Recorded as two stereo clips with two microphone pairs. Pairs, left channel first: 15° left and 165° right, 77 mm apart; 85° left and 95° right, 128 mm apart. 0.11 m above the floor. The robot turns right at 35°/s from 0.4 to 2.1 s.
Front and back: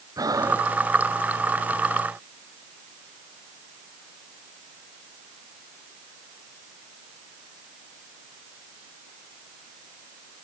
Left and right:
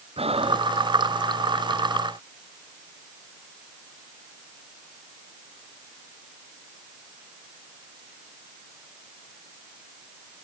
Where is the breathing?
135° right; by 0.7 s 120° right.